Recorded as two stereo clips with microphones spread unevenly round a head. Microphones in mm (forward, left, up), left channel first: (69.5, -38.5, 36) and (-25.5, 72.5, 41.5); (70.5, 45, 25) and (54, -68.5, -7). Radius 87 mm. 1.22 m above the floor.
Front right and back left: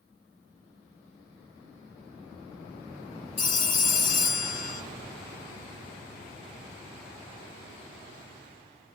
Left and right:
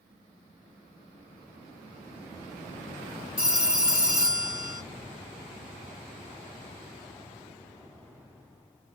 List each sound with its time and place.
3.4 s a phone ringing: 15° right, 1.5 m